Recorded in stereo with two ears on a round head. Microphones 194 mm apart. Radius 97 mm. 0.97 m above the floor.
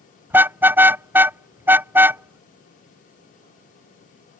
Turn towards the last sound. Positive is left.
turn(degrees=-10)  # may be behind; listen again after turning